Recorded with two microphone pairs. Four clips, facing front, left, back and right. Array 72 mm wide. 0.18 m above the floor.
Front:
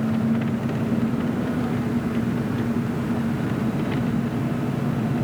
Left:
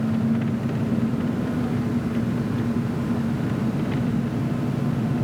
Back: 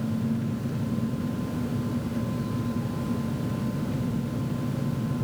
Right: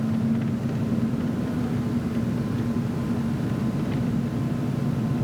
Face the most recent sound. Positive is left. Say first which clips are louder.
# left 2 dB, front 6 dB
turn(degrees=20)